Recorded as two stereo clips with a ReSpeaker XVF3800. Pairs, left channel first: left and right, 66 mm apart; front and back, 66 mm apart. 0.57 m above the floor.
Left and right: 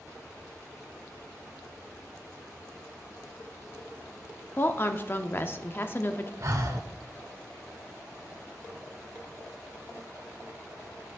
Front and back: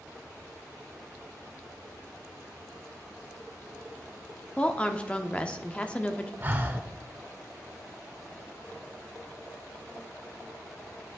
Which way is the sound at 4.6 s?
60° left.